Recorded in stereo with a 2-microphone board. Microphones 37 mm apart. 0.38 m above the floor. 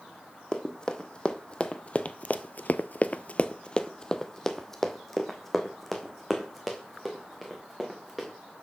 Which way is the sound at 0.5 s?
25° left (ahead or behind).